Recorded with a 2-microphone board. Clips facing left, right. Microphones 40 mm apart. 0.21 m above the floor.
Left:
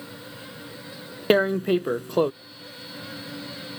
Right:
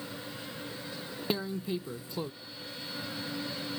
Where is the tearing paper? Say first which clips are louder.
Left 14 dB; 70° left (ahead or behind).